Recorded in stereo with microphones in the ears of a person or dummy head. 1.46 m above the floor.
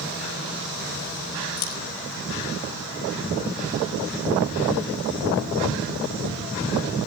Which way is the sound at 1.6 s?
70° left (ahead or behind).